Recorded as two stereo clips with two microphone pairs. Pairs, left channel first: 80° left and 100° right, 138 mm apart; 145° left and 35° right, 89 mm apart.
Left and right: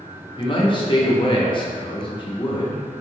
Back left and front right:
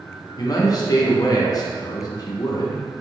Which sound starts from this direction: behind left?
A man speaking, at 0.4 s.